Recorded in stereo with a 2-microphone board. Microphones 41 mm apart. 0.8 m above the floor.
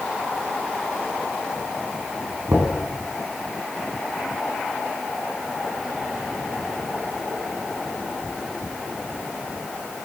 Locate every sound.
2.5 s knocking: 80° right, 8.5 m